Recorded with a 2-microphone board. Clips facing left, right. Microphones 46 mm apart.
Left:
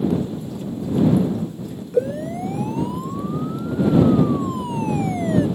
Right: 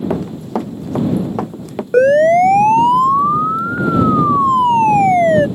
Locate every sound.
0.1 s running footsteps: 90° right
1.9 s a siren: 70° right (ahead or behind); by 5.5 s 55° right (ahead or behind)